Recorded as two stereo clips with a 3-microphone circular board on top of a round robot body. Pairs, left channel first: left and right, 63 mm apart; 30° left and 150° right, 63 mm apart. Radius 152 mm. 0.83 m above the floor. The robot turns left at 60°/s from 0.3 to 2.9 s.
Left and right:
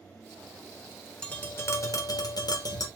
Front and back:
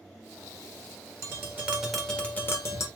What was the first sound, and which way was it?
Tapping, 165° left.